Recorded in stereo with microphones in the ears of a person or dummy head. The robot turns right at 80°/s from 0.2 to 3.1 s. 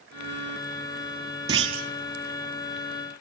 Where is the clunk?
145° right, 1.1 m; by 1.9 s 115° right, 1.1 m.